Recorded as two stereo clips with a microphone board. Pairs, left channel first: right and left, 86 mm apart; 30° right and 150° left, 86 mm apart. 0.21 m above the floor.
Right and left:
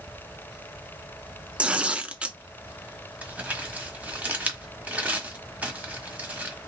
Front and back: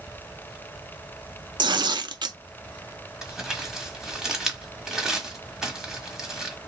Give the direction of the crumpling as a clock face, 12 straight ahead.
9 o'clock.